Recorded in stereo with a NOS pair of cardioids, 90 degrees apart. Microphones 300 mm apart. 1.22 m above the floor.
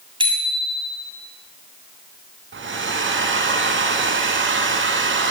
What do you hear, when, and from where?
0.2 s a bicycle bell: 15° right, 6.5 m
2.5 s a hair dryer: 40° right, 5.5 m